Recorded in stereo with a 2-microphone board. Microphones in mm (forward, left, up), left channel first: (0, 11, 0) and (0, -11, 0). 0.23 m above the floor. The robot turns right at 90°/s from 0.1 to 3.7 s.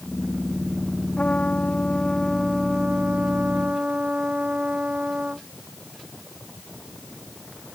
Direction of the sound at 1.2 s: 65° left.